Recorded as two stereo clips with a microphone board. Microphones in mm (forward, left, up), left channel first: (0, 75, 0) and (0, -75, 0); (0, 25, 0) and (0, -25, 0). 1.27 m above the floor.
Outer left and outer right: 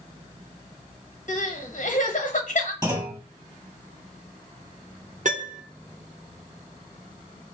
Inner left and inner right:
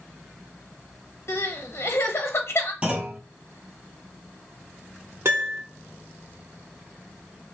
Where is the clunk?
25° right (ahead or behind), 1.4 m.